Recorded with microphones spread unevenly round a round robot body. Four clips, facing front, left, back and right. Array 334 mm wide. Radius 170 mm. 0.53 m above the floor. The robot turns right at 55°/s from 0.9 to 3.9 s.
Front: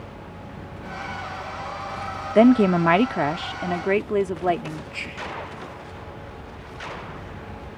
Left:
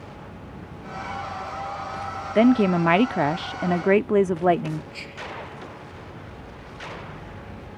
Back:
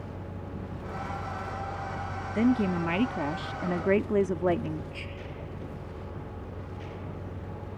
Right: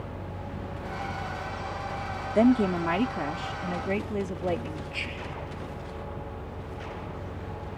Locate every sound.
2.4 s a woman speaking: 5° left; by 4.8 s 90° left
4.9 s whispering: 30° right